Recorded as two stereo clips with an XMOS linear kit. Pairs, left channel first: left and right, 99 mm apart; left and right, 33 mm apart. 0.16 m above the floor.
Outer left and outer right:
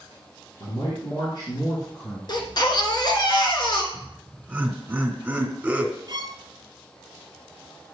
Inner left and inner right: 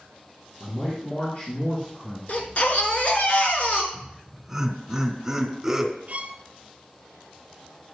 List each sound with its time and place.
0.6 s a man speaking: 55° left (ahead or behind), 2.5 m; by 2.2 s 40° left (ahead or behind), 2.5 m
2.3 s a baby crying: 50° left (ahead or behind), 1.3 m
3.9 s laughter: 5° right (ahead or behind), 2 m
6.1 s a violin: 50° right (ahead or behind), 0.6 m